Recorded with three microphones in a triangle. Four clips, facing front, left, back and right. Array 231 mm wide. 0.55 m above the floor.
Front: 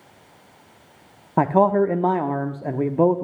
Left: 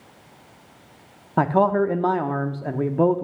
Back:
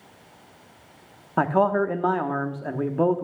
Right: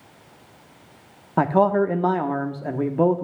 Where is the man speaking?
5° right, 0.9 m.